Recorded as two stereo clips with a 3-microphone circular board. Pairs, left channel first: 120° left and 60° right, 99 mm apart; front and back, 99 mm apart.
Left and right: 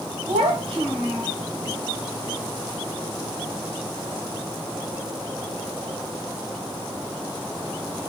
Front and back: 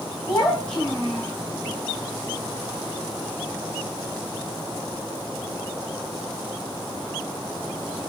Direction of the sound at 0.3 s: 75° right.